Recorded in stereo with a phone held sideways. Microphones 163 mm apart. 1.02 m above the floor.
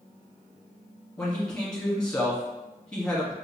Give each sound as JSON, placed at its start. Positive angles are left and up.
{"t": 1.2, "sound": "a man speaking", "side_deg": 5, "distance_m": 1.2}